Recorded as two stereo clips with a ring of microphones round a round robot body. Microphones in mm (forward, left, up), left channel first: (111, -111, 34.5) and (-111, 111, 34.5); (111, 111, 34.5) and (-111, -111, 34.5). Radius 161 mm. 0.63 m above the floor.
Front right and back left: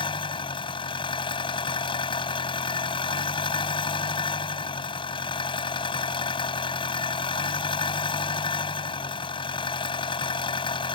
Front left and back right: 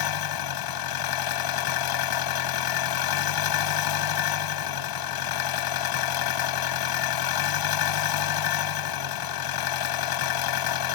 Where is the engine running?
30° left.